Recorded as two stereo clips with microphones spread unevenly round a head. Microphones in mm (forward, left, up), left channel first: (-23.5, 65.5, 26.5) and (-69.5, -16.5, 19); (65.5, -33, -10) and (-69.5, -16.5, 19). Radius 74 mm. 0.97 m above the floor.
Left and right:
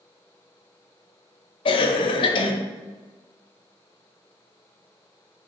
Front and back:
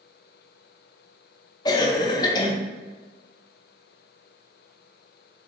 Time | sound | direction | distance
1.6 | a cough | 40° left | 0.6 m